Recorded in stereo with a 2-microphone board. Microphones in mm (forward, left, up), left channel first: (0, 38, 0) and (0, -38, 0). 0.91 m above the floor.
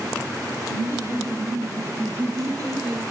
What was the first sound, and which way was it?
Laughter, 45° right (ahead or behind).